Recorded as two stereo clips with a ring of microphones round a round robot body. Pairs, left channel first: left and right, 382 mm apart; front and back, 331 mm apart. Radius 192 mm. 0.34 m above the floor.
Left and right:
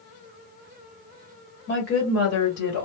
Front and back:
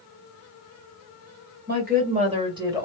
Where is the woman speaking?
135° left, 1.7 m; by 2.9 s 100° left, 1.8 m.